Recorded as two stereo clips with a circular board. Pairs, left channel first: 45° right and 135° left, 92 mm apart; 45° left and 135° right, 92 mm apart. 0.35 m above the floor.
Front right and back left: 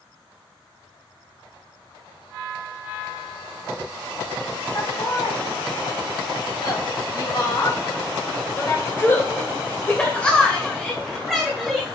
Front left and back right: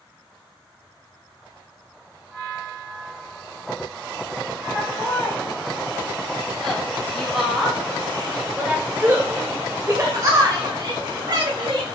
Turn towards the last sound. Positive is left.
turn(degrees=-140)